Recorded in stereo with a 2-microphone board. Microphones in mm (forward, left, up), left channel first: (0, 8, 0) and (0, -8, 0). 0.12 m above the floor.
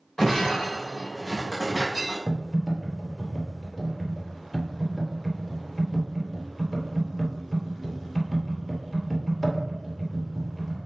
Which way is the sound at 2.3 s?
20° left (ahead or behind).